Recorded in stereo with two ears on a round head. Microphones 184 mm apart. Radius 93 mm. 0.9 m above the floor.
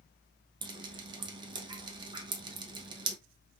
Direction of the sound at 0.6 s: 25° right (ahead or behind).